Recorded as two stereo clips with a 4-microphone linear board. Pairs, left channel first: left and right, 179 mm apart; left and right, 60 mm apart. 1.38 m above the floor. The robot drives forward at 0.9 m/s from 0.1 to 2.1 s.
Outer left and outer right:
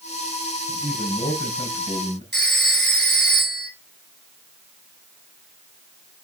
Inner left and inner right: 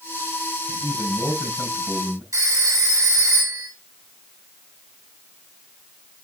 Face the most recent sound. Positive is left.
turn(degrees=-70)  # may be behind; listen again after turning